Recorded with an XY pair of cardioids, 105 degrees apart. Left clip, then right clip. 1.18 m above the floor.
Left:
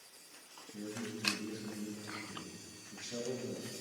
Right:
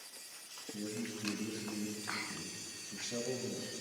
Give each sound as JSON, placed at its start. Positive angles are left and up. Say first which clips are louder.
{"t": 0.7, "sound": "a man speaking", "louder": "right 1 dB", "azimuth_deg": -30, "distance_m": 5.5}